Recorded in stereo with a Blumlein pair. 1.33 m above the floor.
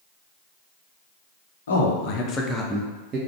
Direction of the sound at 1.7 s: 65° left.